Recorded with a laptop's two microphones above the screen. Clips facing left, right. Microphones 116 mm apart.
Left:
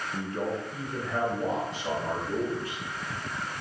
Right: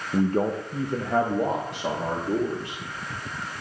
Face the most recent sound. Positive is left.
turn(degrees=-65)  # may be behind; listen again after turning